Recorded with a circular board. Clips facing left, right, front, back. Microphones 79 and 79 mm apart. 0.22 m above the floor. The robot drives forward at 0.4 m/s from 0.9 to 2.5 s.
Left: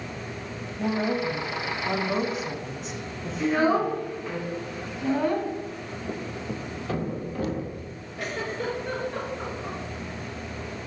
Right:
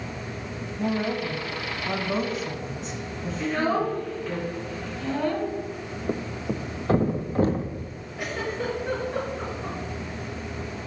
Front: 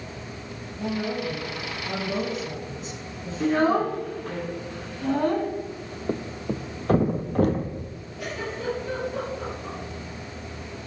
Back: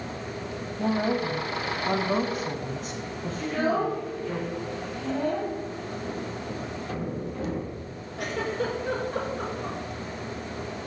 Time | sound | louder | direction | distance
0.8 | a woman speaking | left 1 dB, back 3 dB | 175° left | 1.0 m
3.4 | a child speaking | left 3 dB, front 5 dB | 20° left | 2.0 m
6.1 | a thud | right 5 dB, front 4 dB | 35° right | 1.0 m
8.2 | a giggle | right 1 dB, back 4 dB | 165° right | 3.5 m